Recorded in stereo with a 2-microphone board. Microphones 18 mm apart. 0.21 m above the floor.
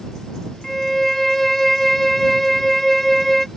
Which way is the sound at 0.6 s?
10° left (ahead or behind).